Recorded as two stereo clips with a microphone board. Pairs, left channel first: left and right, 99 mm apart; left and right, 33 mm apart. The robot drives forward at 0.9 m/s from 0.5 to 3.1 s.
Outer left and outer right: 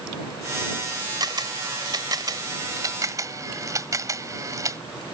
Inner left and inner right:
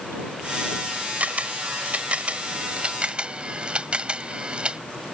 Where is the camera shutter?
45° right (ahead or behind); by 4.8 s 35° right (ahead or behind).